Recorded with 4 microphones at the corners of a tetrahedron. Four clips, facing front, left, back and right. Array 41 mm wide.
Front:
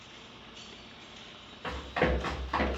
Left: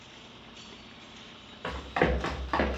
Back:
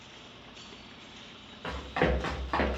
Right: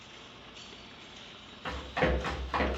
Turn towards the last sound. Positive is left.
turn(degrees=125)